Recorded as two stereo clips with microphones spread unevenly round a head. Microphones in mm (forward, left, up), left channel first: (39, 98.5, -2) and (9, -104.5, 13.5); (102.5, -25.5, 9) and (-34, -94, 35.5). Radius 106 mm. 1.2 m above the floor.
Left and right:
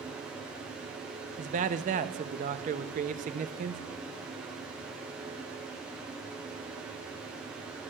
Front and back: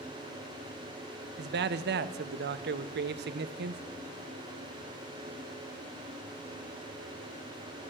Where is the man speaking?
155° right, 0.5 m.